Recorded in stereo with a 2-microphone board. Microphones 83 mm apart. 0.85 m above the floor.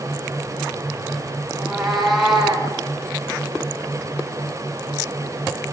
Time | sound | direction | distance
1.5 | a cat meowing | centre (ahead or behind) | 5.5 m